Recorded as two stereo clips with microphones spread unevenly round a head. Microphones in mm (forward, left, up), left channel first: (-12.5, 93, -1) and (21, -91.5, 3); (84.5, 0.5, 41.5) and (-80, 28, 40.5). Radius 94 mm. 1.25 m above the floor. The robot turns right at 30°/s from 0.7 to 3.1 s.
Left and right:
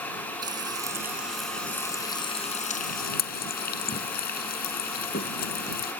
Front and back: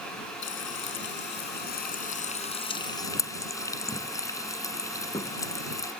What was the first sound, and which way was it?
Frying, 10° right.